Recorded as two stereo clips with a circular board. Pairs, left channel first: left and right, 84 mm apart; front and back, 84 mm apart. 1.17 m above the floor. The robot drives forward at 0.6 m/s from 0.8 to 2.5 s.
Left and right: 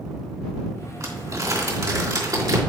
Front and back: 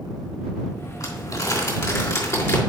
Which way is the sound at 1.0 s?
45° right.